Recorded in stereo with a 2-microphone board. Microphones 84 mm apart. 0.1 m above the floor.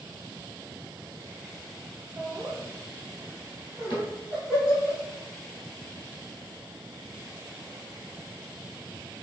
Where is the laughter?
25° right (ahead or behind), 1.1 m; by 4.9 s 5° right (ahead or behind), 2.5 m.